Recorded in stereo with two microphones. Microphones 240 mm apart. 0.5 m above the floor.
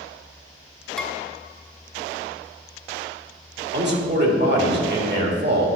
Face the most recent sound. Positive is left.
turn(degrees=-45)  # may be behind; listen again after turning